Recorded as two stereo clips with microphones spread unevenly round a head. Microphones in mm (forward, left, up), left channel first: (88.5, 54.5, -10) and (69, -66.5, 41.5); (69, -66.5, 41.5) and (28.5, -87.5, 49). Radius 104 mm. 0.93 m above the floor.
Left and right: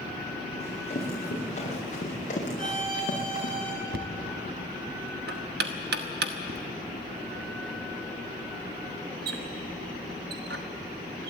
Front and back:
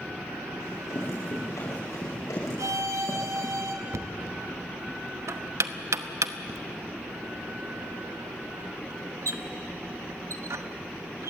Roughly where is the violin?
Behind.